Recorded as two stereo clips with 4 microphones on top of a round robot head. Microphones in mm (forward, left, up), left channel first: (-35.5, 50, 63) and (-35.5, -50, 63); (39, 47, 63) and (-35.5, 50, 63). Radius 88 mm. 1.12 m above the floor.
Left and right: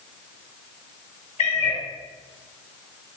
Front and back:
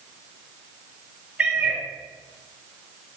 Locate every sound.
1.4 s a cat meowing: 100° left, 1.5 m